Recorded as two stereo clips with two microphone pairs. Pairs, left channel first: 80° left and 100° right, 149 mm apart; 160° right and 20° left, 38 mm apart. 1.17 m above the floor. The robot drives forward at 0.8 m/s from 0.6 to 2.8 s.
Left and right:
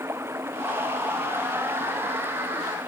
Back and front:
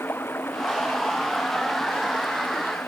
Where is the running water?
175° right.